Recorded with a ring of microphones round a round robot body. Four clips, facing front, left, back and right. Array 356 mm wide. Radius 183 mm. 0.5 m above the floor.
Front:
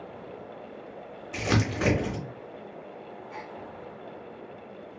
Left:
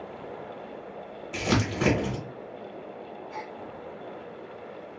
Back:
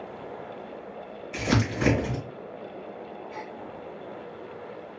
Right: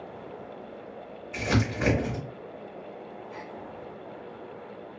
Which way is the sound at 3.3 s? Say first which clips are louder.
Left 5 dB, even; 75° left.